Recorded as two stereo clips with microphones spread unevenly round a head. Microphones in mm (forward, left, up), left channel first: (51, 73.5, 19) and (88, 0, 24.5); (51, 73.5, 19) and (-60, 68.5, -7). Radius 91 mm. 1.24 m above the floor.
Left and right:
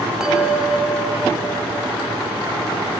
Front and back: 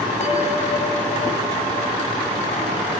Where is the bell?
20° left, 2.5 m.